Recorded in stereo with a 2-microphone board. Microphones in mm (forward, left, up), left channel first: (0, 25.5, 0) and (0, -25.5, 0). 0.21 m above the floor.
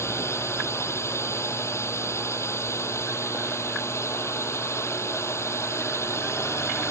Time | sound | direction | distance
0.0 | a drone | 65° left (ahead or behind) | ?